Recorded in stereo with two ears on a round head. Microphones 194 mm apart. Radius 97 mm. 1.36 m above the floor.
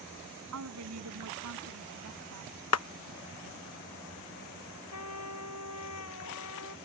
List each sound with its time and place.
0.5 s a woman speaking: 90° right
2.7 s a clap: 80° left
4.9 s a trumpet: 85° left